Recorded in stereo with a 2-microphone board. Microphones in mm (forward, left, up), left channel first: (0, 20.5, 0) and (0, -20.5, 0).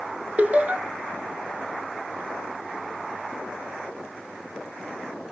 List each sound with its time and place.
0.4 s laughter: 40° right (ahead or behind), 1.4 m